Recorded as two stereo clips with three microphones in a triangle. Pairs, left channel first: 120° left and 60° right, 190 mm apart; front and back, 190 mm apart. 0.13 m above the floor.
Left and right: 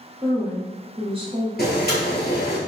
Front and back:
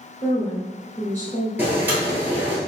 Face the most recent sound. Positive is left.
turn(degrees=100)